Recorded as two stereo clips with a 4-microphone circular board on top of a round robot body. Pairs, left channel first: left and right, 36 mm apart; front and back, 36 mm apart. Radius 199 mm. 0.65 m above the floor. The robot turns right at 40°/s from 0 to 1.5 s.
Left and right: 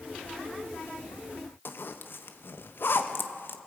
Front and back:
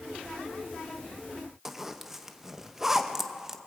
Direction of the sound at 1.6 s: 100° left.